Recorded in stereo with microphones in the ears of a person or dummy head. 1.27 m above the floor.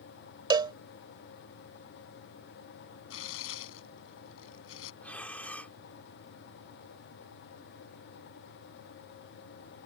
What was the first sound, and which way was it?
A cowbell, 25° right (ahead or behind).